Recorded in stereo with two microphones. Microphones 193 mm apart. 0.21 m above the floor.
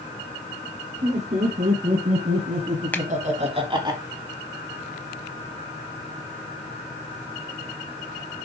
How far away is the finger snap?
About 0.8 m.